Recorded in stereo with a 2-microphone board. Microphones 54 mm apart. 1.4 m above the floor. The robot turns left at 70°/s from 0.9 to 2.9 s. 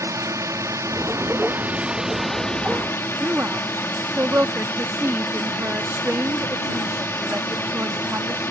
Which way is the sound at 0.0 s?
85° right.